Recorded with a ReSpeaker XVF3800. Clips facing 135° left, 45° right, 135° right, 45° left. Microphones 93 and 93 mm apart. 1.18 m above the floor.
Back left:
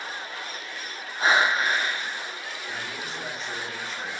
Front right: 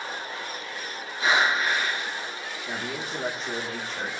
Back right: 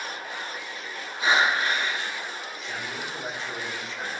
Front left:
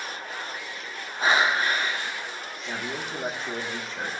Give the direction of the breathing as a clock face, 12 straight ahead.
9 o'clock.